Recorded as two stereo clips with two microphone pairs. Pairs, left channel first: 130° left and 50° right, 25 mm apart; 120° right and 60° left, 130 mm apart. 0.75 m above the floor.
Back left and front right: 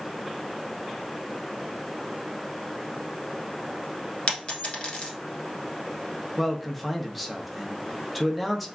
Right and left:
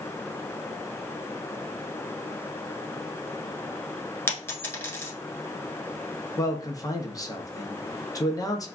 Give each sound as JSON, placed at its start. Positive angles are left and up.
{"t": 4.3, "sound": "a dropped coin", "azimuth_deg": 170, "distance_m": 1.1}
{"t": 6.4, "sound": "a man speaking", "azimuth_deg": -135, "distance_m": 0.7}